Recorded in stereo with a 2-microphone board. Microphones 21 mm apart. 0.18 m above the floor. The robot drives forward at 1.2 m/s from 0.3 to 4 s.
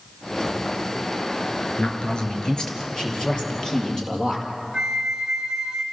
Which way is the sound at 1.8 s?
55° left (ahead or behind).